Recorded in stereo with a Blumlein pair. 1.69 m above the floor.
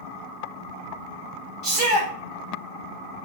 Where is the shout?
30° right, 1.5 m.